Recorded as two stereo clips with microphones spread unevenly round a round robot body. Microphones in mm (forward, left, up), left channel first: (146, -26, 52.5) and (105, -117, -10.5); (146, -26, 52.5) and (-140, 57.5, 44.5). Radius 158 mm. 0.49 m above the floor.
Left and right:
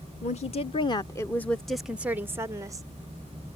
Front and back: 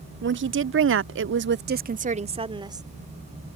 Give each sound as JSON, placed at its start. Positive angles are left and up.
{"t": 0.2, "sound": "a woman speaking", "azimuth_deg": 120}